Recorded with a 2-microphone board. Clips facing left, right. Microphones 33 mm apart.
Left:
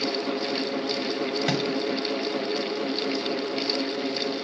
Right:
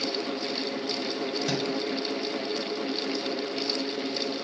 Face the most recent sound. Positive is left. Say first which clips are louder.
# left 3 dB
turn(degrees=50)  # may be behind; listen again after turning